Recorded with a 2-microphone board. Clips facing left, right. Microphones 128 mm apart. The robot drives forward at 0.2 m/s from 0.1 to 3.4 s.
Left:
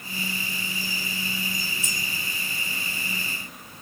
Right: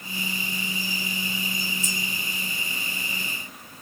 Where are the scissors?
65° left (ahead or behind), 2.5 m.